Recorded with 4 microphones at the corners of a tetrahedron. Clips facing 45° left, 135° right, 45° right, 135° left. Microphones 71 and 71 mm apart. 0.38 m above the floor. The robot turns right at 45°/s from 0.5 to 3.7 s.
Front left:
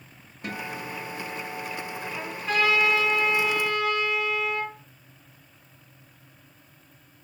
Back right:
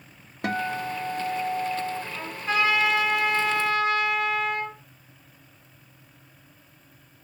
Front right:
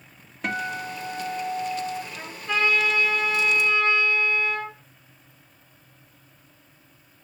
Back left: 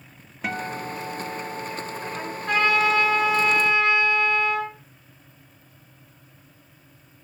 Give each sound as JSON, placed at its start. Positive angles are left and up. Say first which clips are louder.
{"t": 0.4, "sound": "a guitar", "louder": "back right 7 dB, front right 1 dB", "azimuth_deg": -135, "distance_m": 0.7}
{"t": 2.1, "sound": "a trumpet", "louder": "front left 1 dB, back left 5 dB", "azimuth_deg": 145, "distance_m": 3.5}